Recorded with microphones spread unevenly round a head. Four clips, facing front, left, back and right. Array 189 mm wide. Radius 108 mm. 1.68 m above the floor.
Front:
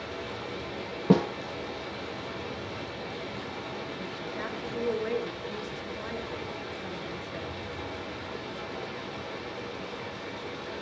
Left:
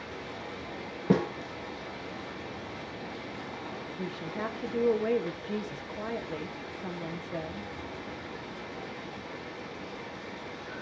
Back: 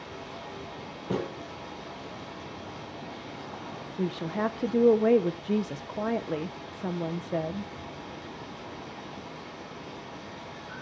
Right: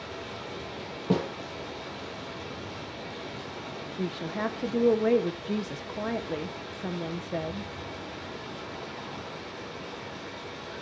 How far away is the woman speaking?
About 1.5 m.